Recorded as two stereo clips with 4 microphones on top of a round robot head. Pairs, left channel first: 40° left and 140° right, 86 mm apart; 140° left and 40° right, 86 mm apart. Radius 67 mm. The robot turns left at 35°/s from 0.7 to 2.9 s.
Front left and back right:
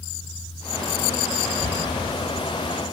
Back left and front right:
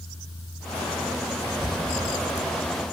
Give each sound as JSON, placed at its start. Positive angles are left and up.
{"t": 1.4, "sound": "whispering", "azimuth_deg": 115, "distance_m": 1.2}